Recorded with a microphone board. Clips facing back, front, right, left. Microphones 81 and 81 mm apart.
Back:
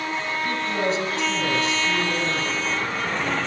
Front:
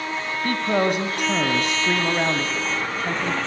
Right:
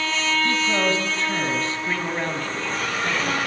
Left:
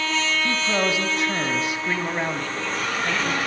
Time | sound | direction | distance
0.4 | a man speaking | 15° left | 3 m